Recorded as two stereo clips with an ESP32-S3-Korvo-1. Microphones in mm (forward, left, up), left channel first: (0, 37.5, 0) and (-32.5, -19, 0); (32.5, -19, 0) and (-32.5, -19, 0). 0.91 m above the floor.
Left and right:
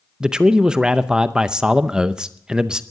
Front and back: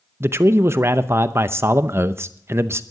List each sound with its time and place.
0.2 s a man speaking: 165° left, 0.7 m